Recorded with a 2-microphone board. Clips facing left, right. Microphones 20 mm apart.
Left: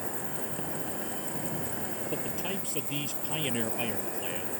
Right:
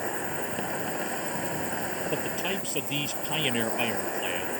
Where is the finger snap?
I don't hear a finger snap.